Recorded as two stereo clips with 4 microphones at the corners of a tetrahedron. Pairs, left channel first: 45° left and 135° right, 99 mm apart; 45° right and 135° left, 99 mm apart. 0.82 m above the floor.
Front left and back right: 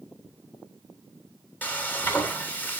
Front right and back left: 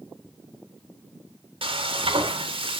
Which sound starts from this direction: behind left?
Frying, at 1.6 s.